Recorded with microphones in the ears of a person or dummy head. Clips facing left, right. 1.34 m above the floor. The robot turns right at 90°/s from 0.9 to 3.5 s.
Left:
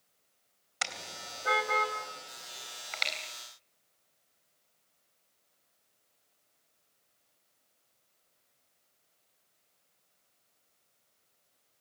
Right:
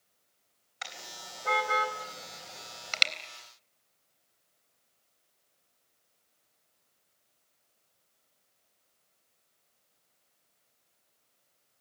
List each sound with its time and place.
0.8 s a car horn: 60° left (ahead or behind), 3.5 m; by 3.1 s 45° right (ahead or behind), 3.5 m